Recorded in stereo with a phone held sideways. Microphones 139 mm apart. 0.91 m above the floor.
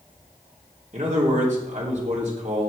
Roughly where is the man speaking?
Right.